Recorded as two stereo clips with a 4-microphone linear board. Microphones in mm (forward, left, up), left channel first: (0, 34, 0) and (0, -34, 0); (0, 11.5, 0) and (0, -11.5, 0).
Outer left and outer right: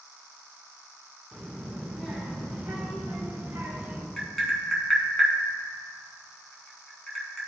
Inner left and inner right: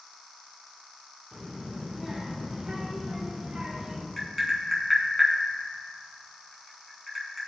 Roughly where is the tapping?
Centre.